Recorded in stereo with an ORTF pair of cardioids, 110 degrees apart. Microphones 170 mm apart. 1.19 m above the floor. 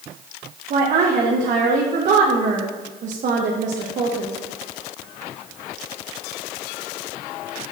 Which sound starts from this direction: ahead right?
A woman speaking, at 0.7 s.